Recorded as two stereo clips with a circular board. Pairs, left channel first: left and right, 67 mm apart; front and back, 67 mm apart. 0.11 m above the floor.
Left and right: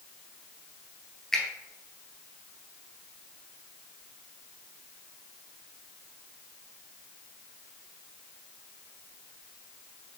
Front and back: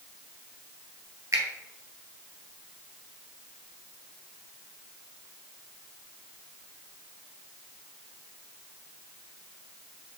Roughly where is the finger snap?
Behind.